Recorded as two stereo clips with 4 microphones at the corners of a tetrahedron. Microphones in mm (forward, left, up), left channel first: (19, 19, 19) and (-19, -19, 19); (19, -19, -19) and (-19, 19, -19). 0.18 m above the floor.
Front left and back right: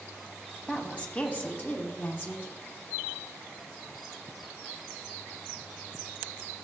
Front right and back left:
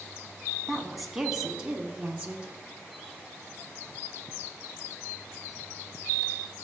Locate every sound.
0.7 s a woman speaking: 15° left, 1.0 m; by 2.5 s 70° left, 1.7 m